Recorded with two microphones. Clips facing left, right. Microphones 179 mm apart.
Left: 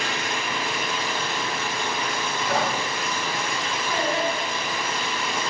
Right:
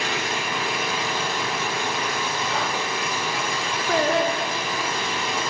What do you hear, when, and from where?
0.0 s an engine running: 40° right (ahead or behind), 5.5 m
2.5 s whispering: 55° left (ahead or behind), 1.3 m
3.9 s singing: 70° right (ahead or behind), 1.2 m